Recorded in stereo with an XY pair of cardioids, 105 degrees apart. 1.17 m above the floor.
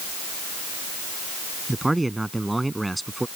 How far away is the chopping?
I don't hear chopping.